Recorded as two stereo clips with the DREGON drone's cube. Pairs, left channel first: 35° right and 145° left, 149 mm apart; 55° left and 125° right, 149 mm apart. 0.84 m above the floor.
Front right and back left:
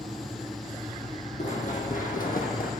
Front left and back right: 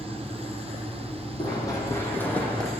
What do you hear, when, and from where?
1.4 s running footsteps: straight ahead, 2 m; by 2.7 s 30° right, 2.5 m